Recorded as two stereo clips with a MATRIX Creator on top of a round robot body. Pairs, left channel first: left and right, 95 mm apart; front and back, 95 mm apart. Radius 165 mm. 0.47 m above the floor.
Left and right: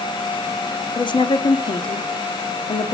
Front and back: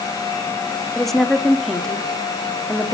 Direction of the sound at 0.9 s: 85° left.